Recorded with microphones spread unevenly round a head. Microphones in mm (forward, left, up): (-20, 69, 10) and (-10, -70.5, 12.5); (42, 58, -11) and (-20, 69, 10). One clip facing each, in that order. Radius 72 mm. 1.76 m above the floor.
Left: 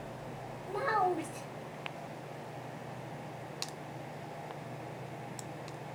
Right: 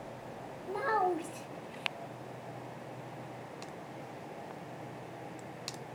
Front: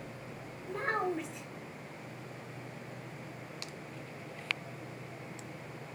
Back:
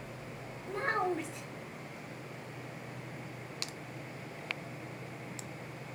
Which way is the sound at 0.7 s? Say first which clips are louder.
Even, back 1 dB; straight behind.